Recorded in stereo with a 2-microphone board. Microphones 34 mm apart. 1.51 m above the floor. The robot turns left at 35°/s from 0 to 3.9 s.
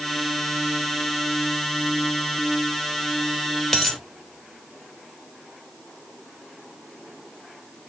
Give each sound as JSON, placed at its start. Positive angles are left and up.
{"t": 3.7, "sound": "a dropped coin", "side_deg": 5, "distance_m": 1.0}